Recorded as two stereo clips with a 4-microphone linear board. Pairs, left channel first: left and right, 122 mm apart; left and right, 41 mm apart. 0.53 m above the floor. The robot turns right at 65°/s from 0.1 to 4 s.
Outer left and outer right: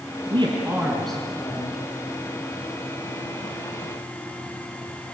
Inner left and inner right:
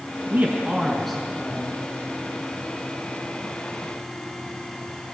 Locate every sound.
0.3 s a man speaking: 45° right, 4 m; by 1.8 s 50° left, 4 m